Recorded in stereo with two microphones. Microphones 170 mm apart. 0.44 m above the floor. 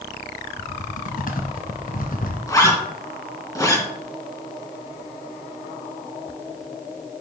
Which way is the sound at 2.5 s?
20° left (ahead or behind).